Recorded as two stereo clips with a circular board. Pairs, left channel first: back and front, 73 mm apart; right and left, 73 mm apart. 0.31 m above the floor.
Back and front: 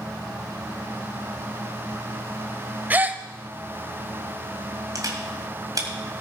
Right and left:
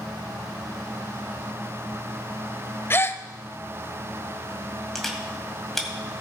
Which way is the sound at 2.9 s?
50° right.